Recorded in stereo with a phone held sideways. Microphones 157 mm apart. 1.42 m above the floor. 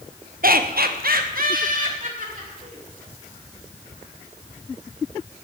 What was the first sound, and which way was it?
Laughter, 70° right (ahead or behind).